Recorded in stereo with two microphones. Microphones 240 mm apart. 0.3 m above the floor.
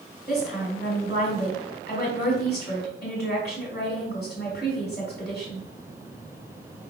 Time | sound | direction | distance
0.3 | a woman speaking | 40° left (ahead or behind) | 1.9 m